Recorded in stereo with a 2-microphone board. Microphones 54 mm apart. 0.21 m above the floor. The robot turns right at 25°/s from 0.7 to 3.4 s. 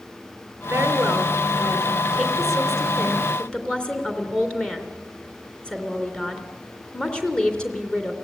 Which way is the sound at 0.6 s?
50° right.